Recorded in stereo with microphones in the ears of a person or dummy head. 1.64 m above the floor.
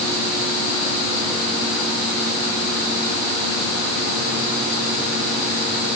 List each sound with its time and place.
Only background noise.